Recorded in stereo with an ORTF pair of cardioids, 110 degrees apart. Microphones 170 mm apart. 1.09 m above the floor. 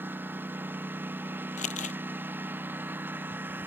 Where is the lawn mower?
10° right.